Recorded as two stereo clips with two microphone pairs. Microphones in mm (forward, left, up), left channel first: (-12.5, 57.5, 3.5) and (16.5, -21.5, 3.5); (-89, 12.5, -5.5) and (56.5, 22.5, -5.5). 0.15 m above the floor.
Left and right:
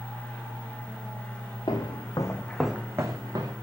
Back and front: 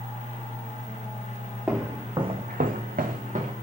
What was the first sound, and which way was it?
Footsteps, 85° left.